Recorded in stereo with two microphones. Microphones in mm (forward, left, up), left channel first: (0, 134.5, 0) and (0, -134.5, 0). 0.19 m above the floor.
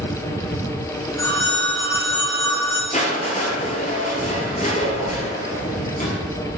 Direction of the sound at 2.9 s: 25° left (ahead or behind).